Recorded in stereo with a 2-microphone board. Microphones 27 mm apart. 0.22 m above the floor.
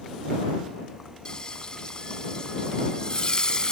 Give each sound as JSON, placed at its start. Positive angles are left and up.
{"t": 1.2, "sound": "frying", "side_deg": 35}